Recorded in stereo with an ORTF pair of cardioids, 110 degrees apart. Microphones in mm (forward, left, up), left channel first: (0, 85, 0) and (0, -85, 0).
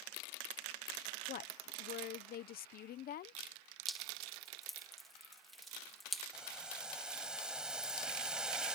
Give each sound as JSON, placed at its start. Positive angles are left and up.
{"t": 1.3, "sound": "a woman speaking", "azimuth_deg": 60}
{"t": 3.9, "sound": "dripping", "azimuth_deg": 0}
{"t": 6.3, "sound": "boiling", "azimuth_deg": -5}